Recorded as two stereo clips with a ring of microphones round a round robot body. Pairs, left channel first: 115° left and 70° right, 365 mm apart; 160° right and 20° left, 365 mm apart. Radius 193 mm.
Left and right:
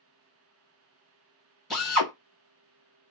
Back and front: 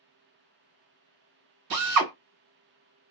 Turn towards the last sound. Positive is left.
turn(degrees=25)